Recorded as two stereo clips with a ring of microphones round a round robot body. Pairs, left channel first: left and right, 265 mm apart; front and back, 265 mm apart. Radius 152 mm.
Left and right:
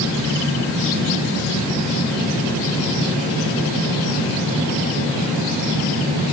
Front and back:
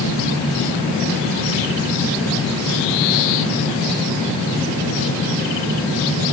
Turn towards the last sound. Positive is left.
No sound to turn to.